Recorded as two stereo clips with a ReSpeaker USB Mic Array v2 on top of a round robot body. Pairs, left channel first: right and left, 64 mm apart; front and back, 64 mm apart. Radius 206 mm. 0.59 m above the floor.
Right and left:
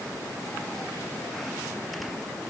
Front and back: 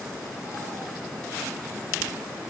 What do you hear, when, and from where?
Only background noise.